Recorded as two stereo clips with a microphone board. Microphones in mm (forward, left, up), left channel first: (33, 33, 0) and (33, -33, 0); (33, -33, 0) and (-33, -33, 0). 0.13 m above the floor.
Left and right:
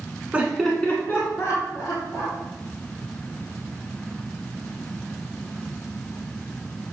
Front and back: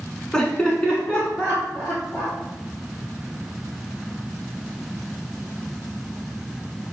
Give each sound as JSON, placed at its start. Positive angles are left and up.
{"t": 0.3, "sound": "laughter", "azimuth_deg": -65, "distance_m": 1.1}